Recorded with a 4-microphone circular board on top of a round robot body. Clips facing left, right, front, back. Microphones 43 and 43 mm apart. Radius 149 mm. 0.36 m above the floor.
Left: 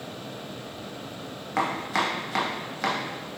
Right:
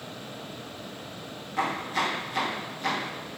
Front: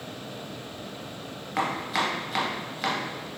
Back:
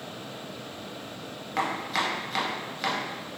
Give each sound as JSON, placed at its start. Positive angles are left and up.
{"t": 1.6, "sound": "chopping", "azimuth_deg": 85, "distance_m": 0.5}